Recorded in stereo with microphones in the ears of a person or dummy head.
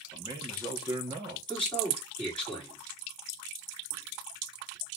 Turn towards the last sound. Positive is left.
turn(degrees=5)  # may be behind; listen again after turning